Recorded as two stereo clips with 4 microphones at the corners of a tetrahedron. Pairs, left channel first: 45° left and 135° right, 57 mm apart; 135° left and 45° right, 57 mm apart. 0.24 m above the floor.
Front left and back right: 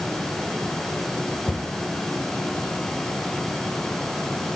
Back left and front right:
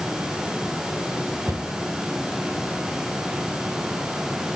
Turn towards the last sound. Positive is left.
turn(degrees=-25)